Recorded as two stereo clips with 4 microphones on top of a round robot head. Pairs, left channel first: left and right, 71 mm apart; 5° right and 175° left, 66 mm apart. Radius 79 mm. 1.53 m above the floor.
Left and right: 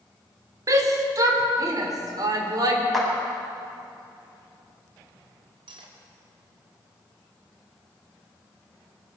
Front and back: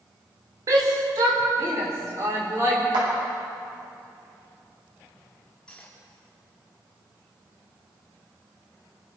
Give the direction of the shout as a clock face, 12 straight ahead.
4 o'clock.